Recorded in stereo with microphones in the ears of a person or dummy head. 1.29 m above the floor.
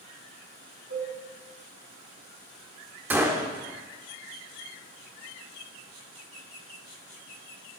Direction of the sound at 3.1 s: 10° right (ahead or behind).